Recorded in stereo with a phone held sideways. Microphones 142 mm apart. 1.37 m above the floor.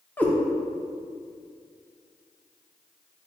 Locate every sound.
0.2 s a cat meowing: 10° left (ahead or behind), 0.6 m